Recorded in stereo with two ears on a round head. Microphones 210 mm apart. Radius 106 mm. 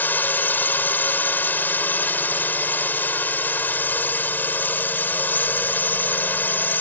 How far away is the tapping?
No tapping in this recording.